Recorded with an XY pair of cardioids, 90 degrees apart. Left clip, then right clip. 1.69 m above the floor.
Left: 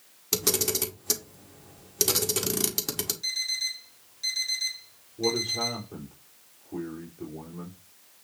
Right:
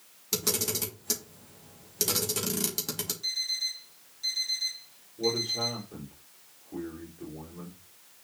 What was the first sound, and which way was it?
A camera shutter, 35° left.